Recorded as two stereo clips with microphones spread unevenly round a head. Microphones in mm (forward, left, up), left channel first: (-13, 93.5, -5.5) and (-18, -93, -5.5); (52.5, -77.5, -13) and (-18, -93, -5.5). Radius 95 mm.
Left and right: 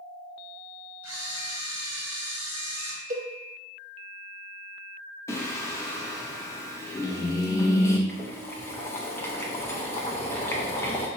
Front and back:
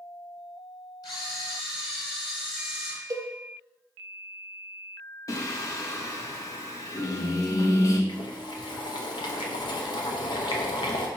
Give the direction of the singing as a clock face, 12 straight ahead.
11 o'clock.